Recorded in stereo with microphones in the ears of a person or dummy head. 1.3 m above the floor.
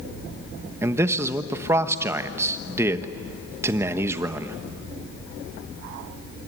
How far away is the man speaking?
About 1.1 m.